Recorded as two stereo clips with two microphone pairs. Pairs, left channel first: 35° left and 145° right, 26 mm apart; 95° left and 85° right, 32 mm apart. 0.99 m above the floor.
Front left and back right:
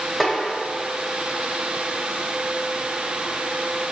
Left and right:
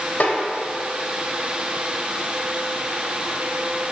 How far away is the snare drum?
About 1.6 m.